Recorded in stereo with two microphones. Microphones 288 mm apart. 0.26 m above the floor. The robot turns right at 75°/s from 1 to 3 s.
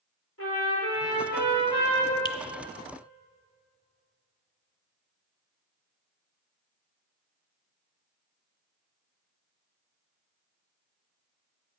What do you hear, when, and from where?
0.4 s a trumpet: 55° left, 4.5 m; by 2.1 s 140° left, 4.5 m
2.2 s a finger snap: 15° left (ahead or behind), 0.9 m; by 2.4 s 10° left (ahead or behind), 0.9 m